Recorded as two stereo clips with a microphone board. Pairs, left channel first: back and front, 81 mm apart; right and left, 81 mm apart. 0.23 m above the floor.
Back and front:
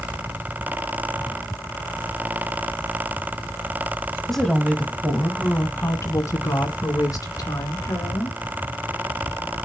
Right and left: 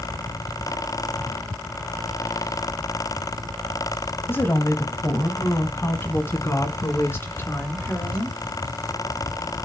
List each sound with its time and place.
4.3 s a woman speaking: 95° right, 1.1 m; by 8.4 s 150° right, 3 m